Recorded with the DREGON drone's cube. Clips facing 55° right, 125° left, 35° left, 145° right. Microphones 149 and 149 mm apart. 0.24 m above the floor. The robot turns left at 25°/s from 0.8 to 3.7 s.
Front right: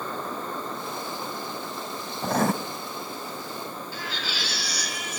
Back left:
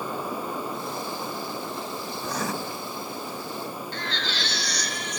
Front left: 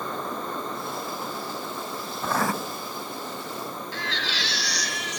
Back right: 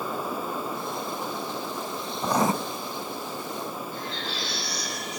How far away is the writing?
About 1.1 m.